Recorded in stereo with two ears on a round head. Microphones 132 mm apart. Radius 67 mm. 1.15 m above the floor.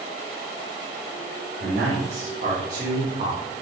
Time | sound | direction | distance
1.6 | a man speaking | 85° right | 3 m